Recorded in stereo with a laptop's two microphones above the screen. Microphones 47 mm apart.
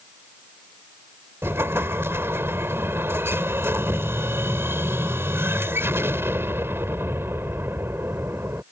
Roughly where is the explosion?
Right.